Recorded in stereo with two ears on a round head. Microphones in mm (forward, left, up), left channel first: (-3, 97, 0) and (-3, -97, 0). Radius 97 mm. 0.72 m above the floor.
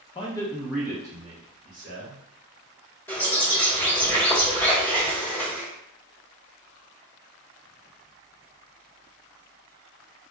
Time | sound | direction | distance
0.1 | a man speaking | 25° left (ahead or behind) | 0.6 m
3.1 | a bird | 10° left (ahead or behind) | 1.0 m